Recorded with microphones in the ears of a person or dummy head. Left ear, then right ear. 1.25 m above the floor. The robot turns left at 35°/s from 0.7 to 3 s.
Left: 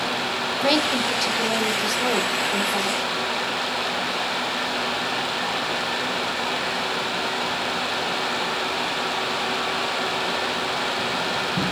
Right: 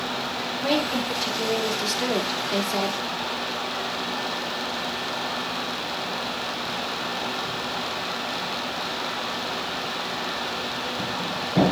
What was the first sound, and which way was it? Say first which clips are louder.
A woman speaking: left 4 dB; 20° left.